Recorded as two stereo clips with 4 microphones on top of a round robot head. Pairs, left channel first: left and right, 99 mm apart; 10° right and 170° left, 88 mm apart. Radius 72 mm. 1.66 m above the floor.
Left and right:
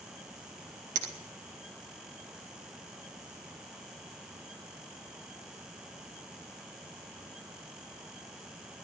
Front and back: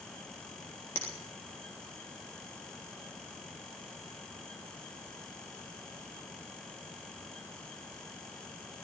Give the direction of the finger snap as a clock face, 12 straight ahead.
3 o'clock.